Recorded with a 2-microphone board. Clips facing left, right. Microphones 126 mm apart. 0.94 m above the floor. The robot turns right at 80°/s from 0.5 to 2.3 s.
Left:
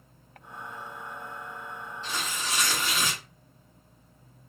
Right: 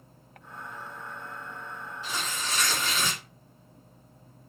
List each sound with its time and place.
2.0 s tearing paper: 10° right (ahead or behind), 1.6 m; by 3.2 s 15° left (ahead or behind), 1.6 m